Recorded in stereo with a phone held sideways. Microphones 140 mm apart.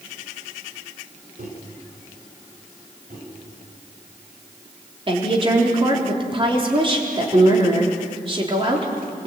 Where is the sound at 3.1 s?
80° right, 8 m.